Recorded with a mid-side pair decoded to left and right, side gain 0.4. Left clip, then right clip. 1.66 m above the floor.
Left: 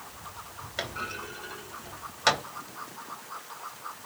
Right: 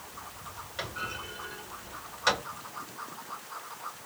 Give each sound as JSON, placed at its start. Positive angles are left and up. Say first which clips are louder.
{"t": 0.8, "sound": "a clunk", "louder": "left 2 dB", "azimuth_deg": 60, "distance_m": 3.0}